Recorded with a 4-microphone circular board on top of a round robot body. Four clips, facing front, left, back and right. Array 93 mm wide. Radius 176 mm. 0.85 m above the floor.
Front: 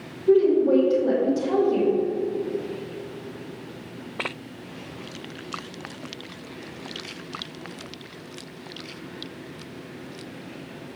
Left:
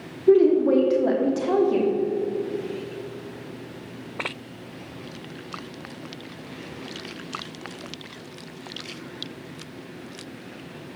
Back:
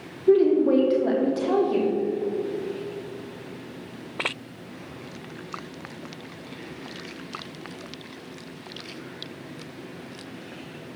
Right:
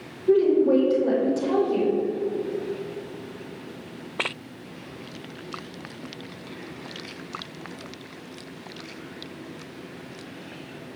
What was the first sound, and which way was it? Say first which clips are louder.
A woman speaking: left 2 dB, even; 120° left.